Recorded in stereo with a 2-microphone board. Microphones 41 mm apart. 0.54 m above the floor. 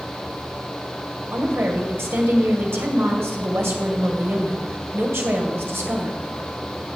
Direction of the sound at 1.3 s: 70° right (ahead or behind).